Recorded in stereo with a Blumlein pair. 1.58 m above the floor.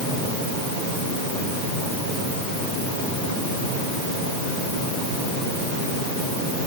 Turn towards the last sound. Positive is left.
No sound to turn to.